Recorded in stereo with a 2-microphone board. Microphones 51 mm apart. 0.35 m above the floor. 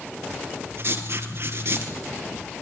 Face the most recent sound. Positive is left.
turn(degrees=-55)  # may be behind; listen again after turning